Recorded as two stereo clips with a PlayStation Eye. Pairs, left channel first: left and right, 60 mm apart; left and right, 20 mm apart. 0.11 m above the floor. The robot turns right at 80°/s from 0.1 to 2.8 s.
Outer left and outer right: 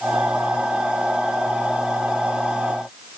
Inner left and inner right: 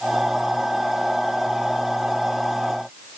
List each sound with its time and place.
Only background noise.